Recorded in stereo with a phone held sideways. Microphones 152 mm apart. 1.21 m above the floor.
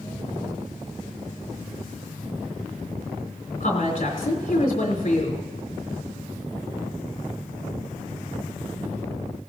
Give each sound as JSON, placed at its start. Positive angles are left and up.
{"t": 3.6, "sound": "a woman speaking", "side_deg": 60, "distance_m": 3.5}